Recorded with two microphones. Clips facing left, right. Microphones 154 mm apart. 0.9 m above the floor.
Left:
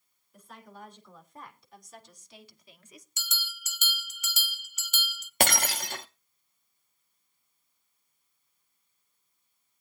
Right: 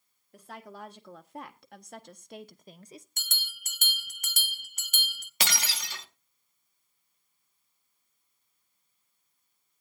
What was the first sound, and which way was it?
A woman speaking, 75° right (ahead or behind).